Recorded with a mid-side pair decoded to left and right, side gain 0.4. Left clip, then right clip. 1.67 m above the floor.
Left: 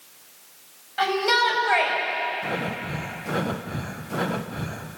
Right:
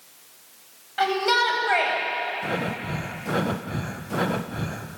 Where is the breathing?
15° right, 1.1 m.